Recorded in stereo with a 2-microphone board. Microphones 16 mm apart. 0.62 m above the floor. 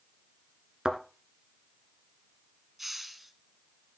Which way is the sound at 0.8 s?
75° right (ahead or behind).